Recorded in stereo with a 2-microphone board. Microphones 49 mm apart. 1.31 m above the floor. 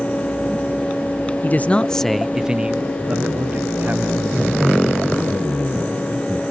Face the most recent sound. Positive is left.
turn(degrees=-40)  # may be behind; listen again after turning